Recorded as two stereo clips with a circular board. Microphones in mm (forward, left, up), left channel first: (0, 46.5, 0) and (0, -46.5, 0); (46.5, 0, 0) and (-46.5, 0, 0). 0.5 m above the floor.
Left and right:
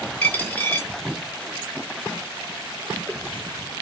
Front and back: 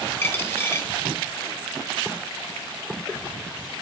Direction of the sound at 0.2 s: 40° left.